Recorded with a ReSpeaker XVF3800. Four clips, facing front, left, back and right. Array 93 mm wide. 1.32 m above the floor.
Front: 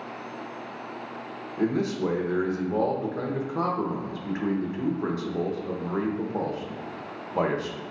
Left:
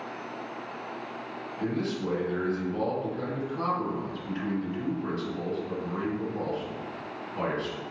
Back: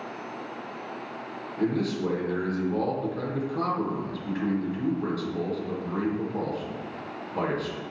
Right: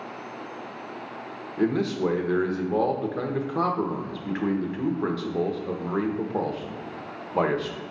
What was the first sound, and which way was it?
A man speaking, 70° right.